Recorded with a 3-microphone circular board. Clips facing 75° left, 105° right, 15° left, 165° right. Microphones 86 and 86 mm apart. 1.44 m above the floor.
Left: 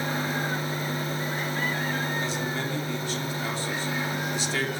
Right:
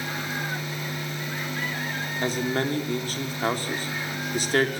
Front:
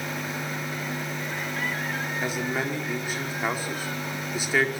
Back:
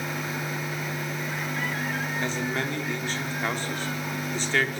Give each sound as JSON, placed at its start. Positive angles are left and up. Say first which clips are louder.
{"t": 2.2, "sound": "a man speaking", "louder": "right 4 dB, front 2 dB", "azimuth_deg": -65, "distance_m": 4.5}